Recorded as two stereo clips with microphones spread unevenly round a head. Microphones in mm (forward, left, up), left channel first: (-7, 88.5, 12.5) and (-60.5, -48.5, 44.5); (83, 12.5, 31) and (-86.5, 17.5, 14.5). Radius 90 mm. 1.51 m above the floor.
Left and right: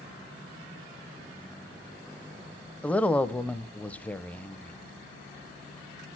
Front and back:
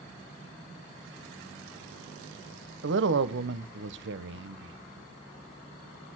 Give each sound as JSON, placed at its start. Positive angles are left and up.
{"t": 2.8, "sound": "a woman speaking", "azimuth_deg": 155, "distance_m": 0.8}